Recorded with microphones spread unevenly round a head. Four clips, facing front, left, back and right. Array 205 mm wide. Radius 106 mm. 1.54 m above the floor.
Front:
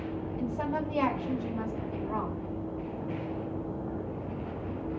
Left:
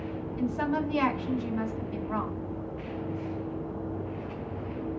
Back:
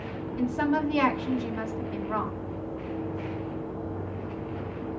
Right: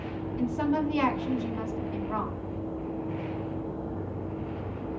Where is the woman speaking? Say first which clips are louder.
Right 2 dB, back 7 dB; 165° left, 3.5 m.